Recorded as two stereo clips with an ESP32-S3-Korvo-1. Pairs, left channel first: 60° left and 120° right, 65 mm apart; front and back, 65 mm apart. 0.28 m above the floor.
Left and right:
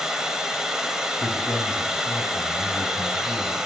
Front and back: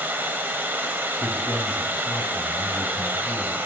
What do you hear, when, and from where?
0.0 s running water: 170° left, 0.8 m
1.2 s a man speaking: 50° left, 1.4 m